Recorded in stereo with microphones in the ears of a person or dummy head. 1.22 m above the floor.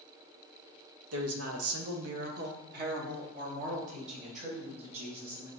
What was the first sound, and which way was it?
A woman speaking, 70° right (ahead or behind).